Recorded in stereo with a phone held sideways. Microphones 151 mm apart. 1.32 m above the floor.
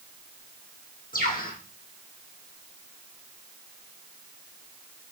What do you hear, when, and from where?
1.1 s a bird: 70° left (ahead or behind), 7.5 m